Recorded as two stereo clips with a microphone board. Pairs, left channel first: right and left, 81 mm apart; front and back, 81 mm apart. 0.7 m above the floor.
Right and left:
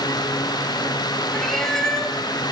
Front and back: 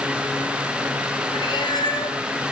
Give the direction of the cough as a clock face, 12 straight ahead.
No cough in this recording.